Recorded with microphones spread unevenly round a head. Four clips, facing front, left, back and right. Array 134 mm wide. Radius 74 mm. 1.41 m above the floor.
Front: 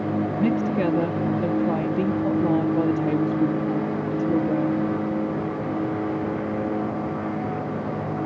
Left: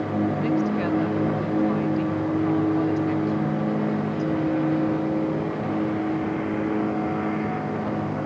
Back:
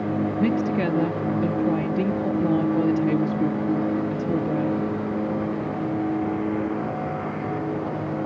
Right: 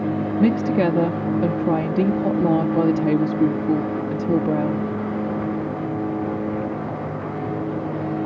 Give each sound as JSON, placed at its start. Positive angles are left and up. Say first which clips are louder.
{"t": 0.4, "sound": "a woman speaking", "louder": "right 5 dB, front 1 dB", "azimuth_deg": -90}